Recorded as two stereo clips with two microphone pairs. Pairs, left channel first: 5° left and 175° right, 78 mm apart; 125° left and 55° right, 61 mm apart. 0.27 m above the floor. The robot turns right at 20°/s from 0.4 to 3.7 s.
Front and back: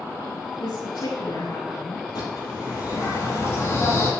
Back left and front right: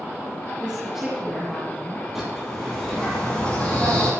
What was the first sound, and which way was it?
A woman speaking, 20° left.